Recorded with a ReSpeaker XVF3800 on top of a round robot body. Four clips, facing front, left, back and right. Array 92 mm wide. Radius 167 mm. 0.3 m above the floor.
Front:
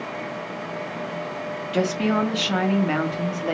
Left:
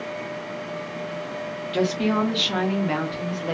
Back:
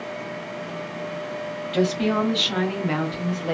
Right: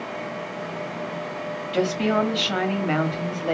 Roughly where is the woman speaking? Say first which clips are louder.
Right 1 dB, even; ahead right.